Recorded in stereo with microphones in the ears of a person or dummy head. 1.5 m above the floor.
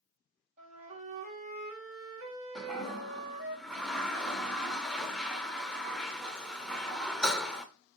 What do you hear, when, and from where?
0.6 s a flute: 40° right (ahead or behind), 1.5 m
2.5 s a toilet flushing: centre (ahead or behind), 0.6 m